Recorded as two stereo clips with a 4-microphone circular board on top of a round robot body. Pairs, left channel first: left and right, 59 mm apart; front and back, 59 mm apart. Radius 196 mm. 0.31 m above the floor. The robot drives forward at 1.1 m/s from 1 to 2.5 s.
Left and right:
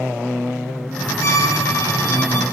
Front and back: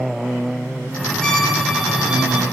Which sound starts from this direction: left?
A violin, at 1.2 s.